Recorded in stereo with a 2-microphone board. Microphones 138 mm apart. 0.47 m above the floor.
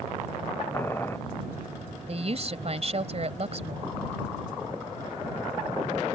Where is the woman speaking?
50° right (ahead or behind).